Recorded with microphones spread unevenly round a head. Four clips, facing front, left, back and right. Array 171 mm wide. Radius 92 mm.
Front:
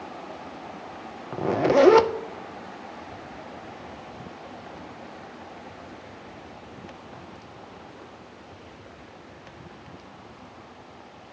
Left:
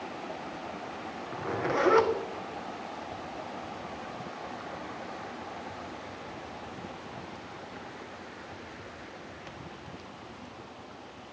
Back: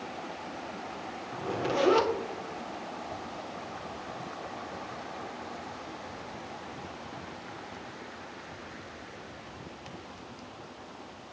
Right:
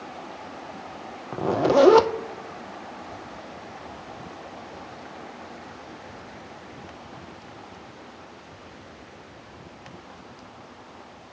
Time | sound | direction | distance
1.3 | a zipper | 50° right | 0.5 m